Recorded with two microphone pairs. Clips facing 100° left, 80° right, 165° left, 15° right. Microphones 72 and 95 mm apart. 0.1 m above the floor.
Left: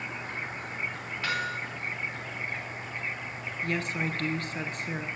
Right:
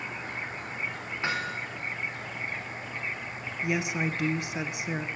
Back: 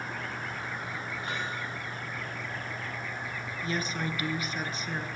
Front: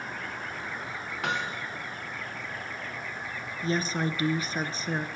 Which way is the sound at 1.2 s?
15° right.